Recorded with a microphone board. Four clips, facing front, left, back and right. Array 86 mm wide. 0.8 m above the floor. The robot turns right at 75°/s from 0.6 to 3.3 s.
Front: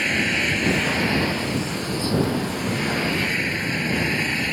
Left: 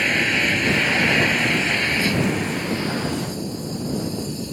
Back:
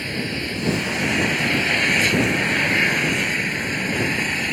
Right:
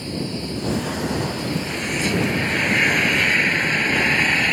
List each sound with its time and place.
0.0 s an engine running: 65° left; by 4.5 s 95° right